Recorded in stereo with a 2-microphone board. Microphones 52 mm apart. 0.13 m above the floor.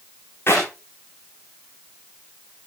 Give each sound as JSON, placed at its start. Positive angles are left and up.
{"t": 0.5, "sound": "a clap", "side_deg": 50, "distance_m": 9.0}